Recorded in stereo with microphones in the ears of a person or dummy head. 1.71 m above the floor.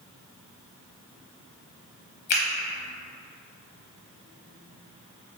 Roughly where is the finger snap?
Left.